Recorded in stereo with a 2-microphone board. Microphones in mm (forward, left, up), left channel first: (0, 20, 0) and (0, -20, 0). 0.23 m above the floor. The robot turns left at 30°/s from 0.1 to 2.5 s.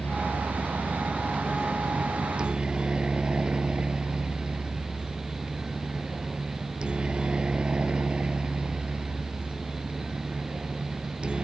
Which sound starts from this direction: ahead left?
A helicopter, at 0.0 s.